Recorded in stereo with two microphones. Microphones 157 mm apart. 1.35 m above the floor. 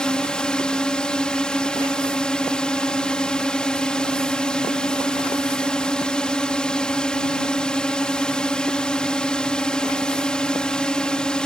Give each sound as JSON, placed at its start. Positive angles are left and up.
{"t": 0.0, "sound": "a drone", "side_deg": 5}